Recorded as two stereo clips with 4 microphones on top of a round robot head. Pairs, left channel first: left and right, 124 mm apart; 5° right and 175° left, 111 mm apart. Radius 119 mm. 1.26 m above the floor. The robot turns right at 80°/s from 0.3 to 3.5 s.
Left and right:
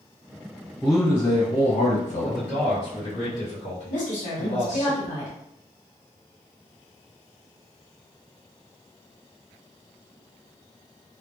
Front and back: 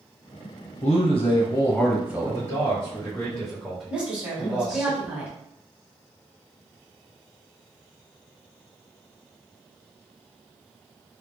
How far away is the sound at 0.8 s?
About 0.9 m.